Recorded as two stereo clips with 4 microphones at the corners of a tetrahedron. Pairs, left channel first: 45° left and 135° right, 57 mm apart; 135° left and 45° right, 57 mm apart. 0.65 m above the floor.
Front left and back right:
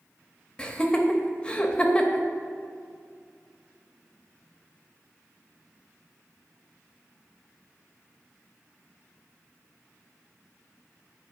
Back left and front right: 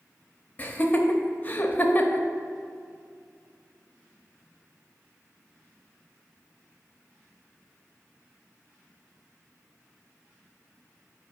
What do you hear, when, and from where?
0.6 s laughter: 105° left, 0.7 m